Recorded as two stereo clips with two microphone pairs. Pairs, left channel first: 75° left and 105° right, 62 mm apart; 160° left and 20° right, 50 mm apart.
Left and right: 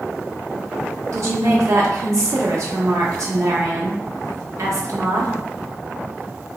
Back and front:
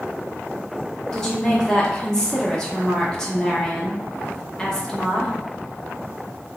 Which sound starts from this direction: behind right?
A woman speaking, at 1.1 s.